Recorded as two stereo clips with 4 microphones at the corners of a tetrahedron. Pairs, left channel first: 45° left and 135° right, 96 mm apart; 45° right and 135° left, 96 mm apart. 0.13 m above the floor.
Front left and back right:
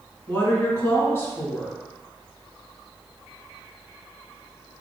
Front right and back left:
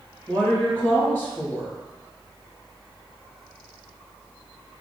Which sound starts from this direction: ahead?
A woman speaking, at 0.3 s.